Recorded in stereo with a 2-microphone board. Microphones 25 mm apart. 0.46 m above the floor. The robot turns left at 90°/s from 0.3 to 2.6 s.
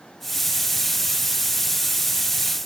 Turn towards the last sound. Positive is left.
No sound to turn to.